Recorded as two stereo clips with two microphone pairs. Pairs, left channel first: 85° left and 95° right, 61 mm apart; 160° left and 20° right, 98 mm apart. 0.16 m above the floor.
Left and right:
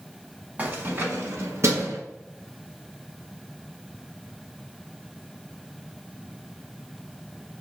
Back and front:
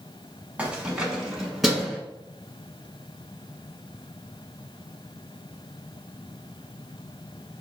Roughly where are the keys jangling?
Right.